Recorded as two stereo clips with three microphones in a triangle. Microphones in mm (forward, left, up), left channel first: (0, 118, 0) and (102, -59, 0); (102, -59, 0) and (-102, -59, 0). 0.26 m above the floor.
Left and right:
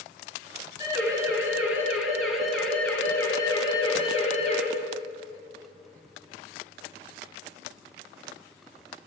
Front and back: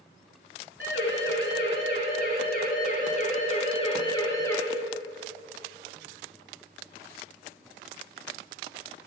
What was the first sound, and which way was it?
A siren, 10° left.